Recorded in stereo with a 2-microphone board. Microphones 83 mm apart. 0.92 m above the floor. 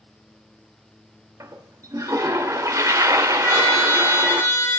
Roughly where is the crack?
No crack in this recording.